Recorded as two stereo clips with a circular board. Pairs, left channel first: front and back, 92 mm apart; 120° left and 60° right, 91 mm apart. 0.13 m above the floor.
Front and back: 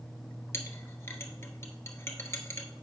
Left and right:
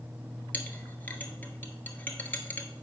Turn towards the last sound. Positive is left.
turn(degrees=55)